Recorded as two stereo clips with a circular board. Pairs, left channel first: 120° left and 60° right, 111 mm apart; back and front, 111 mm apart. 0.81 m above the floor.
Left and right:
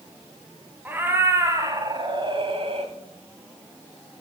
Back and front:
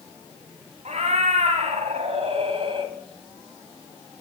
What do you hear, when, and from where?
0.8 s a cat meowing: 15° left, 1.6 m; by 2.9 s 40° right, 1.2 m